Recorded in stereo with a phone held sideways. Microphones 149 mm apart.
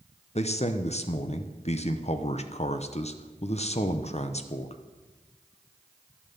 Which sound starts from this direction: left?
A man speaking, at 0.3 s.